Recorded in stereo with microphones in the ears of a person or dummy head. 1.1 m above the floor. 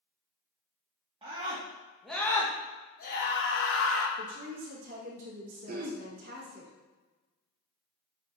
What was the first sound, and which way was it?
A scream, 30° right (ahead or behind).